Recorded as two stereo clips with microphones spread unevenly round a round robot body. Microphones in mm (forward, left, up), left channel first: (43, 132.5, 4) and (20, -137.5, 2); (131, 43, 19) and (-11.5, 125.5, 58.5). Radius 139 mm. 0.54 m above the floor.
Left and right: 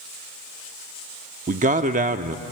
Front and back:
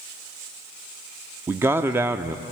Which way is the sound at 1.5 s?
120° right.